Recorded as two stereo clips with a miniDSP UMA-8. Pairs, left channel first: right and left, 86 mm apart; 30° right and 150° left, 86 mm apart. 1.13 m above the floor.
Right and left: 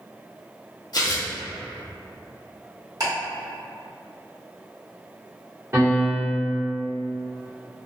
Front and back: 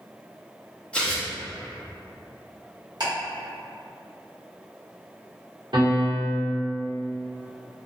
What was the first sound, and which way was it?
Tearing paper, 105° right.